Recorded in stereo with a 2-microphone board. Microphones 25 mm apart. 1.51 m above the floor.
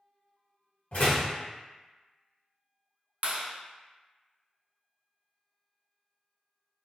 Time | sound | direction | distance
0.9 | a door slam | 55° left (ahead or behind) | 1.3 m
3.2 | a clap | 45° right (ahead or behind) | 0.5 m